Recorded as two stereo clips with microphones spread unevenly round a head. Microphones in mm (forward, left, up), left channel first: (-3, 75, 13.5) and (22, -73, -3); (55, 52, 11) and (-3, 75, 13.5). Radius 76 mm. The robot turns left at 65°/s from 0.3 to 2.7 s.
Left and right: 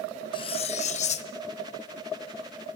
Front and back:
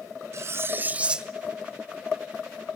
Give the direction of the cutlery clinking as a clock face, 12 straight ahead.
7 o'clock.